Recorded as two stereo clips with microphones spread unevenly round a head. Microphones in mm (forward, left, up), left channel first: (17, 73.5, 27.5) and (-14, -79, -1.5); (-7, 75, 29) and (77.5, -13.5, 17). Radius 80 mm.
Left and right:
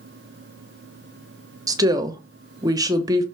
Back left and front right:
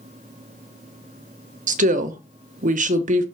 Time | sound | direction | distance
1.7 | a woman speaking | 35° right | 1.0 m